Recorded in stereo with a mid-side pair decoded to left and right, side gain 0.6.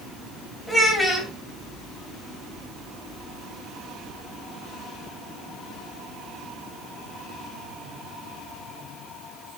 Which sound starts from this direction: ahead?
A child speaking, at 0.7 s.